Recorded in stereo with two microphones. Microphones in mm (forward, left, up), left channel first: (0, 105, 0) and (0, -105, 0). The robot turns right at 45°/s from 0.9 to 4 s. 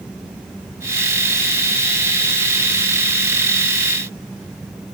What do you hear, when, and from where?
Only background noise.